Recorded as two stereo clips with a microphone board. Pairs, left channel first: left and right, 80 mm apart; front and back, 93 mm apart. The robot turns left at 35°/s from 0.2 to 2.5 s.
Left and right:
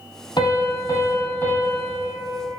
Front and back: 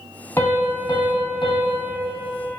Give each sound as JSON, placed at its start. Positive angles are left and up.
{"t": 0.4, "sound": "a piano", "azimuth_deg": 65, "distance_m": 0.8}